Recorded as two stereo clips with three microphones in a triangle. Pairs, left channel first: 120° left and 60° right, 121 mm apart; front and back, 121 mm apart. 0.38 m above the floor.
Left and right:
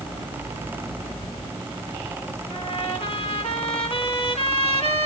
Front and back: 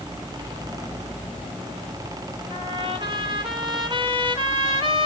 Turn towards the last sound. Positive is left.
turn(degrees=145)